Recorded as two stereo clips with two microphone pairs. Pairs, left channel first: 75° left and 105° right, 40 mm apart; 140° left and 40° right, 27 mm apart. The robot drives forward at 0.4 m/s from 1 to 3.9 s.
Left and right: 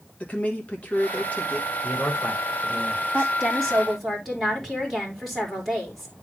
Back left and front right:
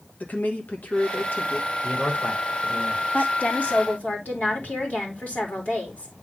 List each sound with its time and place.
0.2 s a woman speaking: 130° left, 2.0 m; by 1.7 s 135° left, 2 m
1.8 s a man speaking: 130° left, 3.5 m; by 3.3 s 135° left, 4 m
3.1 s a woman speaking: 165° left, 3 m